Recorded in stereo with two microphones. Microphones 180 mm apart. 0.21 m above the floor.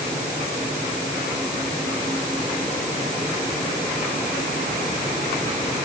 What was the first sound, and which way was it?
Only background noise.